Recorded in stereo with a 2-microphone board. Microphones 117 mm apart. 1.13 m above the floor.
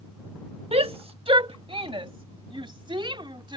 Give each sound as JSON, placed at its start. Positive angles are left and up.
{"t": 0.7, "sound": "a shout", "side_deg": -60}